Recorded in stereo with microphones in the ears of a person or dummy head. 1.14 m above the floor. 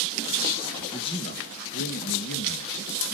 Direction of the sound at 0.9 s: 30° left (ahead or behind).